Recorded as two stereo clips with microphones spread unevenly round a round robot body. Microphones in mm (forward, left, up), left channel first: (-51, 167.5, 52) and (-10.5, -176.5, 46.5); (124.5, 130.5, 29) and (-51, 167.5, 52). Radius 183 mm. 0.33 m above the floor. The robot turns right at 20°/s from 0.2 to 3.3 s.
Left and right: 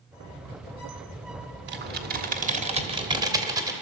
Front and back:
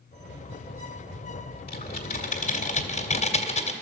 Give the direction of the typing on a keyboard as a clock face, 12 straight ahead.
1 o'clock.